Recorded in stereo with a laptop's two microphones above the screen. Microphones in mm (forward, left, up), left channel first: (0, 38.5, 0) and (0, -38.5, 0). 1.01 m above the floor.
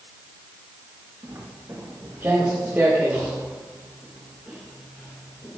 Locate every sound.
1.2 s footsteps: 40° right (ahead or behind), 5 m; by 5.6 s 10° left (ahead or behind), 5 m